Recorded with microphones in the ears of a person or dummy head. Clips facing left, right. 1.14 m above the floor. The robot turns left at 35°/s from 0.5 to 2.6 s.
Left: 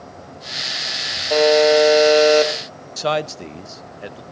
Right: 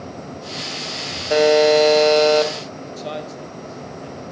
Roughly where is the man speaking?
Left.